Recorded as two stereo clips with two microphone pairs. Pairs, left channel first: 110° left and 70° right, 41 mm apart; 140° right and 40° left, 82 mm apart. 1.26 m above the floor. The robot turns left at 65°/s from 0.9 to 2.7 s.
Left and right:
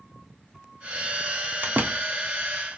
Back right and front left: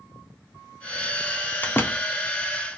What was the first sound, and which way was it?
A door slam, 75° right.